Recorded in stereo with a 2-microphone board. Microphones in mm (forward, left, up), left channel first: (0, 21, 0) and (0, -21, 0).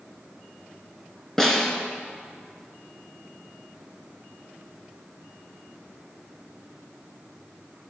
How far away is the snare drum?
About 2.5 m.